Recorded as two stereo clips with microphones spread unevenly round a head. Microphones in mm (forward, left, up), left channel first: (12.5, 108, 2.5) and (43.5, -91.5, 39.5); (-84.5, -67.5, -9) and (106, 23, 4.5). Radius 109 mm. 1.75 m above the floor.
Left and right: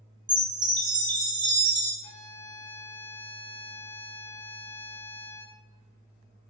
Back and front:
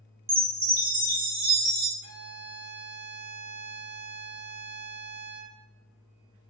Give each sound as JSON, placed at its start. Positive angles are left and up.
{"t": 0.3, "sound": "a chime", "azimuth_deg": -20, "distance_m": 0.8}
{"t": 2.0, "sound": "a violin", "azimuth_deg": 170, "distance_m": 0.6}